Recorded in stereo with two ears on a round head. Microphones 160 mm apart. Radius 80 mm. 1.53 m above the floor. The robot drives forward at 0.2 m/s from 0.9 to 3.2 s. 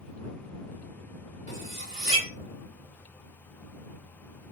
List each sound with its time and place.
1.5 s cutlery clinking: 40° right (ahead or behind), 1.8 m; by 2.3 s 35° right (ahead or behind), 2.0 m